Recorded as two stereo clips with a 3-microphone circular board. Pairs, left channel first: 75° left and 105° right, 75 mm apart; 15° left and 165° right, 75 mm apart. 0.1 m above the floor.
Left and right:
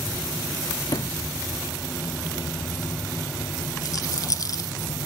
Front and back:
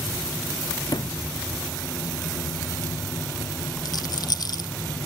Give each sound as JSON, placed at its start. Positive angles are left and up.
{"t": 0.9, "sound": "a sliding door", "azimuth_deg": 45}
{"t": 3.9, "sound": "a rattle", "azimuth_deg": 40}